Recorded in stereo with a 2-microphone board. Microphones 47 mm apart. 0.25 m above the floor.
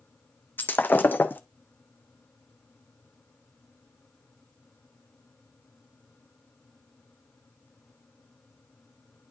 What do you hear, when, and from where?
0.6 s breaking glass: 40° left (ahead or behind), 0.7 m